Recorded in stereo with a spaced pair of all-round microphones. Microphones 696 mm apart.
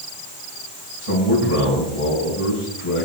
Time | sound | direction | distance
1.0 | a man speaking | 55° left (ahead or behind) | 7 m